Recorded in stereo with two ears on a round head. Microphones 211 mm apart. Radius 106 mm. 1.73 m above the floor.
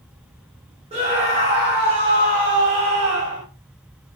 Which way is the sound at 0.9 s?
30° right (ahead or behind).